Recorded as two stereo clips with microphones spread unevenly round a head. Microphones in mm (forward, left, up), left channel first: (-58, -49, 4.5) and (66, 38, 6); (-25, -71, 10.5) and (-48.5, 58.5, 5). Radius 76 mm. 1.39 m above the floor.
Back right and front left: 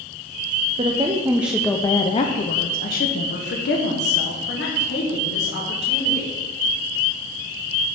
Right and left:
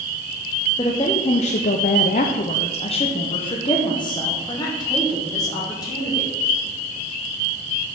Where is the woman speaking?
15° right, 0.7 m; by 6.3 s 145° right, 2.5 m.